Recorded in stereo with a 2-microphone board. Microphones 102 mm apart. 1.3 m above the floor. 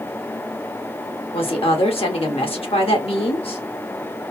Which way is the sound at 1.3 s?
70° left (ahead or behind).